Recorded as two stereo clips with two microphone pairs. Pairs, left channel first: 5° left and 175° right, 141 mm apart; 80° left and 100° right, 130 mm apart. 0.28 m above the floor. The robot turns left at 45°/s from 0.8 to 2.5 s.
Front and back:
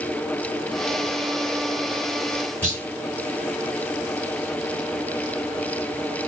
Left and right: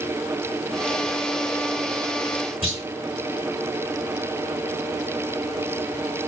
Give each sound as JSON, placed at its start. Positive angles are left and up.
{"t": 2.6, "sound": "a clunk", "azimuth_deg": 115, "distance_m": 3.0}